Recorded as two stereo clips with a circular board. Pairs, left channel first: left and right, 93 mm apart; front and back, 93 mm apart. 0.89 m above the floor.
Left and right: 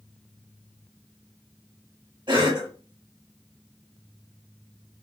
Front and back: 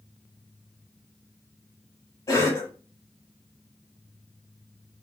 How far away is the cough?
About 1.9 m.